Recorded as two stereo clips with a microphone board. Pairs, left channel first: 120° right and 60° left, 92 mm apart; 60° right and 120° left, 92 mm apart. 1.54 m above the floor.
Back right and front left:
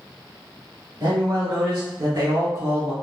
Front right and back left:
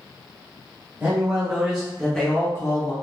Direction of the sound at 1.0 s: 55° left.